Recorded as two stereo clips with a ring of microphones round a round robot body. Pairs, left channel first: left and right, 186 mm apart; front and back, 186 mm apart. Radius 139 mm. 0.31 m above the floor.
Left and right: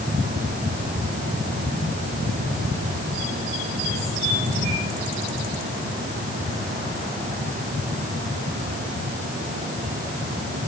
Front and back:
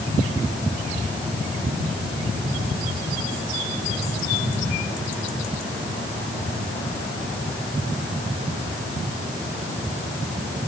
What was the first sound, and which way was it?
Only background noise.